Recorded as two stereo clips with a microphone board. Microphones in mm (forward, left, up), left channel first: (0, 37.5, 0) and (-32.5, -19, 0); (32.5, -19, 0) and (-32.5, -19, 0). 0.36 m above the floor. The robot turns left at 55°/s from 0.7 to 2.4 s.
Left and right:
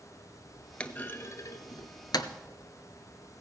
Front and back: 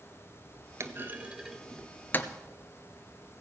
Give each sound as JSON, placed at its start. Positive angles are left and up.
{"t": 0.8, "sound": "a clunk", "azimuth_deg": 135, "distance_m": 1.0}